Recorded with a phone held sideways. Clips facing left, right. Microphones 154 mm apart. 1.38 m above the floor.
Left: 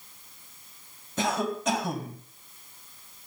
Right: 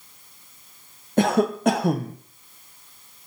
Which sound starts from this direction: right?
A cough, at 1.2 s.